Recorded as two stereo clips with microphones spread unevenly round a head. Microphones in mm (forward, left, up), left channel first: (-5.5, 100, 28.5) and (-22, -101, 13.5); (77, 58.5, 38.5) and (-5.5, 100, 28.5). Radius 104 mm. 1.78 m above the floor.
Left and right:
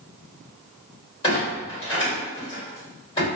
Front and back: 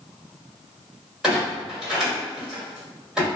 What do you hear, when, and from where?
1.2 s a clunk: 65° left, 1.7 m